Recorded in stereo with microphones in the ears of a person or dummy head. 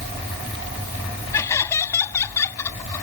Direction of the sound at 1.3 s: 15° left (ahead or behind).